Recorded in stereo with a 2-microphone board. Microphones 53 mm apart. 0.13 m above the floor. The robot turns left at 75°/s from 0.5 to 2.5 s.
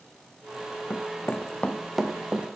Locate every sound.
0.9 s running footsteps: 35° left (ahead or behind), 0.5 m; by 2.5 s 30° right (ahead or behind), 2 m